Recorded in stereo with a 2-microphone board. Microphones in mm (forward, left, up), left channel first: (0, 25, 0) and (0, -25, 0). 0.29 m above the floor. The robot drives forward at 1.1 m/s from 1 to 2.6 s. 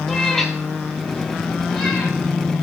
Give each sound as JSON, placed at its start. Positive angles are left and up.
{"t": 0.1, "sound": "a cat meowing", "side_deg": 10, "distance_m": 1.1}